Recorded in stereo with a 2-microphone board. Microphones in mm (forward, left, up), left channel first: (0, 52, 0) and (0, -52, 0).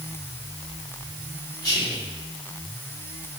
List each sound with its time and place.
1.6 s whispering: 10° left (ahead or behind), 1.5 m